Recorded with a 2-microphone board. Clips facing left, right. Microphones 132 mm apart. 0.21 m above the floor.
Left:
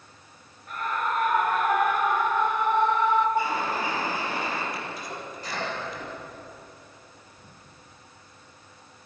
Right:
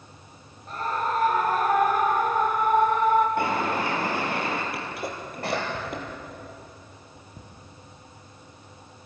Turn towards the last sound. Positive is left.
turn(degrees=-60)  # may be behind; listen again after turning